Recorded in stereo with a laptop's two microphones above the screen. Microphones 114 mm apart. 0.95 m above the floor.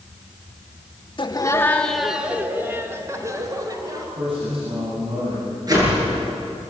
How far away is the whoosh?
About 9.5 m.